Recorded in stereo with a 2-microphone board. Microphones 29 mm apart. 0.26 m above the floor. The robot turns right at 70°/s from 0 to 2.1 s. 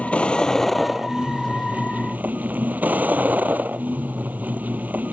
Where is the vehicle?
120° left; by 5.2 s 95° right.